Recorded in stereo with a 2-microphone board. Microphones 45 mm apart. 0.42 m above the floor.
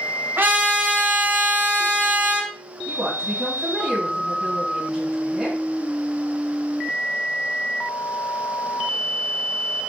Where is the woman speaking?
15° right (ahead or behind), 3.5 m.